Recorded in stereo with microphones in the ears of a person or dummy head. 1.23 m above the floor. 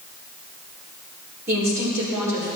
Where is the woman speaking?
15° right (ahead or behind), 4.5 m.